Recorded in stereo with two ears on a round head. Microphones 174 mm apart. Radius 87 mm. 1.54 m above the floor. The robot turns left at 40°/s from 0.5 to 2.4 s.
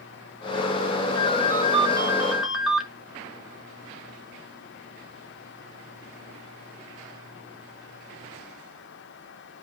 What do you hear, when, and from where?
1.1 s a ringtone: 130° right, 1.9 m; by 2.9 s straight behind, 1.9 m